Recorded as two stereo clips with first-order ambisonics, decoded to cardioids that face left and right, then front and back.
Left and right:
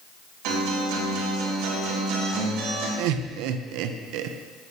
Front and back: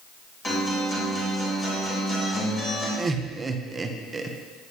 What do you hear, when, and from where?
0.4 s a guitar: 70° right, 3.5 m
3.0 s laughter: 105° right, 0.8 m